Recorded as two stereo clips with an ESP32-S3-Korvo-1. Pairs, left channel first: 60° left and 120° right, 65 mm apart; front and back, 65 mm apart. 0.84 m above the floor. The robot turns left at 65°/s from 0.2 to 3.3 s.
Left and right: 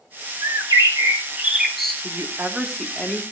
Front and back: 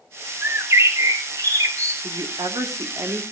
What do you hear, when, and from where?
0.4 s a bird: 120° right, 2 m; by 1.9 s 140° left, 2 m
2.0 s a woman speaking: 160° right, 1.8 m; by 3.2 s 120° left, 1.8 m